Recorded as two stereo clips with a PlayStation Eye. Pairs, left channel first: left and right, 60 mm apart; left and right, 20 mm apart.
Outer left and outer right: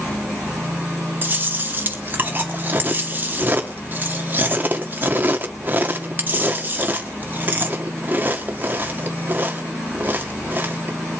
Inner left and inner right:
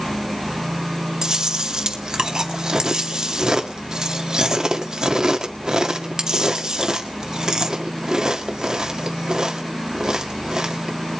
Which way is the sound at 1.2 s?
35° right (ahead or behind).